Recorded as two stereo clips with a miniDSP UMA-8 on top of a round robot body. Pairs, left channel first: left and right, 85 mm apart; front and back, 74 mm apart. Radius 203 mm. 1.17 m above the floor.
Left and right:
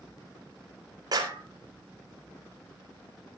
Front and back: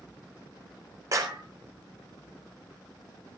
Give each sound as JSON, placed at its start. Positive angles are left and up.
{"t": 1.1, "sound": "a clap", "azimuth_deg": -135, "distance_m": 4.0}